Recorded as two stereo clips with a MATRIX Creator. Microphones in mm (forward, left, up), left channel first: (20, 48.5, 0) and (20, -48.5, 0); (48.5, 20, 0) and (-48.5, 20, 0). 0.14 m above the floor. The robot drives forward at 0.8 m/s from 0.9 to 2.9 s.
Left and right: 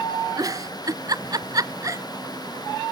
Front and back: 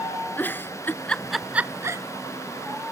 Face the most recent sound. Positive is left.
turn(degrees=-155)